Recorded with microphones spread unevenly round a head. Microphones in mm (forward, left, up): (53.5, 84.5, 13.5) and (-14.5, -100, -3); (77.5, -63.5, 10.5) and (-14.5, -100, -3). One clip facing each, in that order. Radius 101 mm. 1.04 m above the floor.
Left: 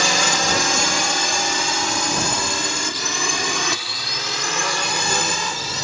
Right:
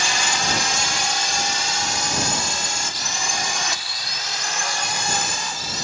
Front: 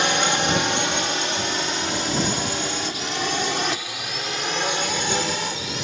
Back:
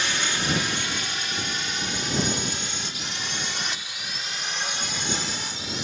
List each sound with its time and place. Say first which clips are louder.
0.0 s a drone: left 5 dB, front 7 dB; 75° left; by 5.8 s 55° left